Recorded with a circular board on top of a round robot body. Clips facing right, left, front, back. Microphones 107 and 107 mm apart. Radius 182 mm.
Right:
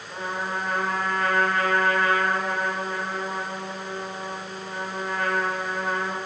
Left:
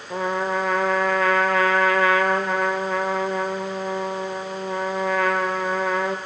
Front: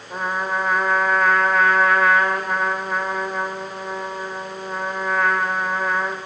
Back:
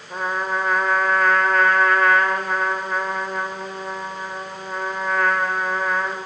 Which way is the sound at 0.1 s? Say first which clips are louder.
Left 7 dB, even; 90° left.